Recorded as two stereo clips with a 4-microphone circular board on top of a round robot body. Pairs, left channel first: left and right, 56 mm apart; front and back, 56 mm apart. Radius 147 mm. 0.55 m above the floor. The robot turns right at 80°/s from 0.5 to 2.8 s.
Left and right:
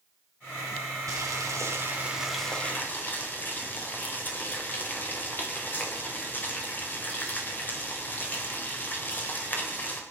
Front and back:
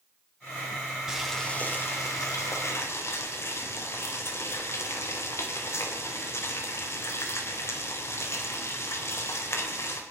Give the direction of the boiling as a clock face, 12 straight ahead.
3 o'clock.